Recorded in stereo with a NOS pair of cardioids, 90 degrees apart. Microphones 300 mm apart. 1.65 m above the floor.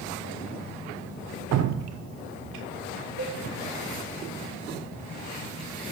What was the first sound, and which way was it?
Dripping, 60° right.